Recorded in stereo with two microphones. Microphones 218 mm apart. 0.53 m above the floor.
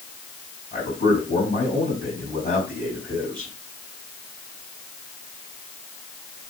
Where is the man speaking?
40° left (ahead or behind), 3.5 m.